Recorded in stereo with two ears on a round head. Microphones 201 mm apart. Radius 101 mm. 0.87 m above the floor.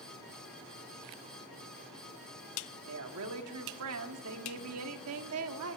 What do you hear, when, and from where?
2.9 s a woman speaking: 70° right (ahead or behind), 1.6 m